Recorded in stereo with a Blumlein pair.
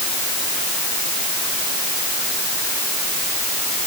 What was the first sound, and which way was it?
Only background noise.